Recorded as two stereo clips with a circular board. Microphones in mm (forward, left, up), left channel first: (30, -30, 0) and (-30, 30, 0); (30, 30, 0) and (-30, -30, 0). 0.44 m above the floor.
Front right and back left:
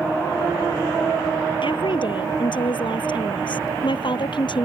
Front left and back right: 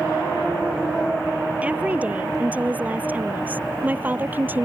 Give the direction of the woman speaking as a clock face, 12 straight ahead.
2 o'clock.